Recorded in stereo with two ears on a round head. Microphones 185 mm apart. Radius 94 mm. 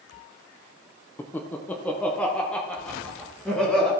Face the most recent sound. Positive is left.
turn(degrees=5)  # may be behind; listen again after turning